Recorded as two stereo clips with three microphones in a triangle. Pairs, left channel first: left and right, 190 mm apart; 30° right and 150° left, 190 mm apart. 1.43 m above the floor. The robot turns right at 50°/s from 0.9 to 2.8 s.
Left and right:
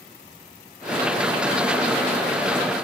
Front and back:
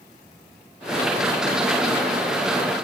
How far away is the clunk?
No clunk in this recording.